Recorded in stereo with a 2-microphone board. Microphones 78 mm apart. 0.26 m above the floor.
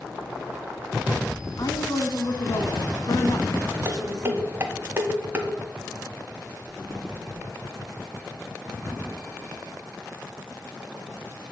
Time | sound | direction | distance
1.6 | a woman speaking | 50° left (ahead or behind) | 1.8 m
3.9 | dishes clattering | 30° right (ahead or behind) | 1.3 m
6.6 | a drawer | 5° left (ahead or behind) | 6 m